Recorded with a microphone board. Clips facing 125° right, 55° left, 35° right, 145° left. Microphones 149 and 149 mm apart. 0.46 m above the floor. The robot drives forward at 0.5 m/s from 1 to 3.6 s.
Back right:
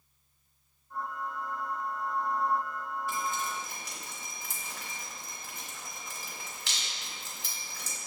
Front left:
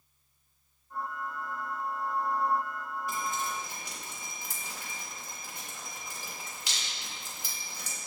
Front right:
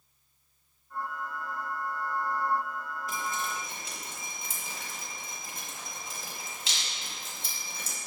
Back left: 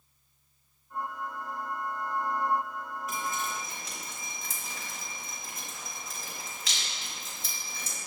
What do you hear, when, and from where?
3.1 s dripping: 5° right, 1.3 m